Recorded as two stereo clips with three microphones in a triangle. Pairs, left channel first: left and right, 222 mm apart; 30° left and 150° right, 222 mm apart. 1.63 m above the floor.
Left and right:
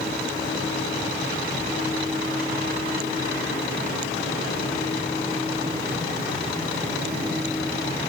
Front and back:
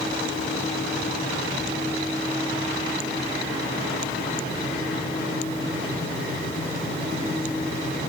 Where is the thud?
I don't hear a thud.